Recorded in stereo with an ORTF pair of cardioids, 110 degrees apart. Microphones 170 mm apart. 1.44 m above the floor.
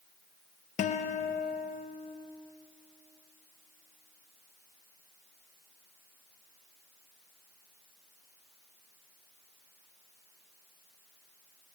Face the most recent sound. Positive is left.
turn(degrees=50)